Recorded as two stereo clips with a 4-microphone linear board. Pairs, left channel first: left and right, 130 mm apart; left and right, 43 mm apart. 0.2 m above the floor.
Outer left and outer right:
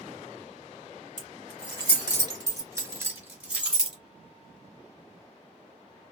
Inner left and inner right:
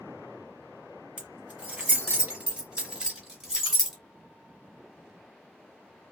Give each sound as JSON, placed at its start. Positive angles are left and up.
{"t": 1.2, "sound": "keys jangling", "side_deg": -35, "distance_m": 1.6}